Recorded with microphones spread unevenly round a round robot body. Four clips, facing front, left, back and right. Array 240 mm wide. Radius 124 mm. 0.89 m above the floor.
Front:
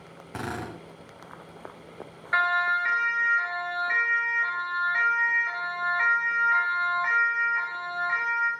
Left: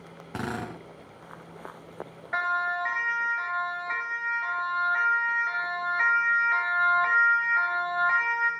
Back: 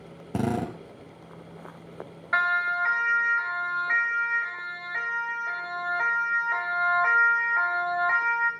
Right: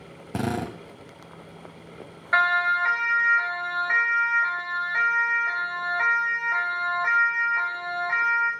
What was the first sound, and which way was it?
A drill, 155° right.